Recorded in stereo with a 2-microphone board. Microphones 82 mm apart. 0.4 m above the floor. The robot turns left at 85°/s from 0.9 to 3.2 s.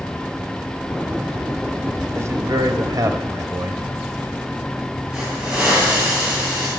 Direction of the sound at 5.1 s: 10° right (ahead or behind).